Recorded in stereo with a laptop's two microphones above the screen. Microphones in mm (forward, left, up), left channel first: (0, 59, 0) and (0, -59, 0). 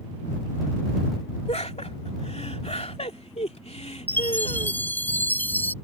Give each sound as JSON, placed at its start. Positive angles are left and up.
{"t": 1.5, "sound": "laughter", "side_deg": 70}
{"t": 4.1, "sound": "a chime", "side_deg": 15}